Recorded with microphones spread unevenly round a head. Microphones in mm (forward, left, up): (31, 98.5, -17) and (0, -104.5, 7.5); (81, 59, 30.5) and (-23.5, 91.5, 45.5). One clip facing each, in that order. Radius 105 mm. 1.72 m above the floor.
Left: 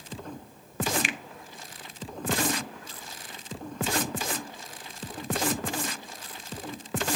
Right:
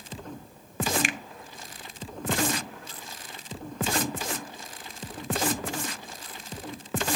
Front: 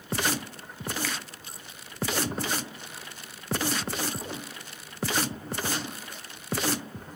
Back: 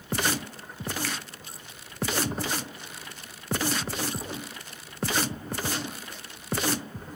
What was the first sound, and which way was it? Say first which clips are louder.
A finger snap: right 2 dB, even; 55° right.